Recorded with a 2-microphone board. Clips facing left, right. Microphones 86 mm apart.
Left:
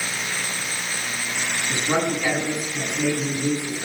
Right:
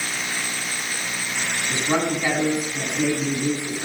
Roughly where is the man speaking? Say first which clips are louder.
Even; right.